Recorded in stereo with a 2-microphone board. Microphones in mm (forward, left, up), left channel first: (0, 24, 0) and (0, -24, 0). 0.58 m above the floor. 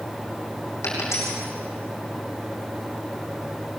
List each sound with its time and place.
0.8 s a dropped coin: 65° left (ahead or behind), 6 m